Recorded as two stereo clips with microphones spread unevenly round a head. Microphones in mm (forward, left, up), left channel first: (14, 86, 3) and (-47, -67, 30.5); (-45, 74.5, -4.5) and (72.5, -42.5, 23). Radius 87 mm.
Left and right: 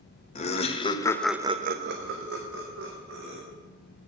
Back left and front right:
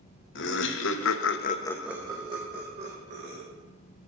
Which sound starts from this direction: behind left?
Laughter, at 0.3 s.